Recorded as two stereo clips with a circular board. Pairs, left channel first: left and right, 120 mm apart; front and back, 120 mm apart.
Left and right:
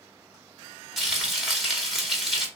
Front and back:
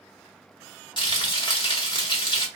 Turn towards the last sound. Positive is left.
turn(degrees=0)